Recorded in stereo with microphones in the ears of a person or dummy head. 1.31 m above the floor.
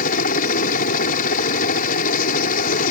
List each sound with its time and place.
0.0 s a helicopter: 50° left (ahead or behind)